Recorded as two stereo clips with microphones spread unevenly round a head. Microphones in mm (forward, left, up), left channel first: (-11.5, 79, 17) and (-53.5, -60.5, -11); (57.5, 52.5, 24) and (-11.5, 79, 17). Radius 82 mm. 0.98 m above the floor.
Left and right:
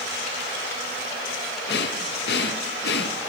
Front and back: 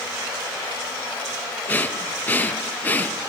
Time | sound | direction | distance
1.7 | breathing | 45° left | 0.9 m